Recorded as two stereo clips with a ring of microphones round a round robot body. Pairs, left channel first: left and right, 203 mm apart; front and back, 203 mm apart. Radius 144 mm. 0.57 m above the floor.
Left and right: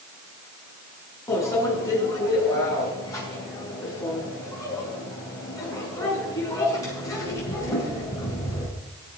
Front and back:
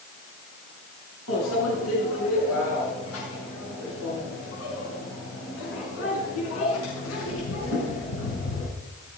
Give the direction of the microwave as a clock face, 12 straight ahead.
11 o'clock.